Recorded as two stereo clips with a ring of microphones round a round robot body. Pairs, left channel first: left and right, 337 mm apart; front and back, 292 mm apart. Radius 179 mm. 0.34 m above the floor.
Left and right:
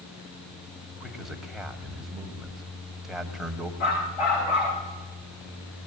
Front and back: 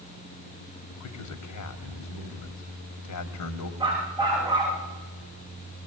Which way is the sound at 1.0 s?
Straight ahead.